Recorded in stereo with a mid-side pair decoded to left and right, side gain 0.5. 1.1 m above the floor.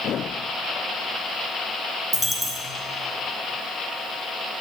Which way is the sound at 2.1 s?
5° right.